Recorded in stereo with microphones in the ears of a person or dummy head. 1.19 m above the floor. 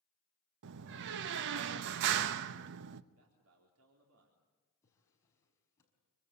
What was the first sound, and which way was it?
A door slam, 65° right (ahead or behind).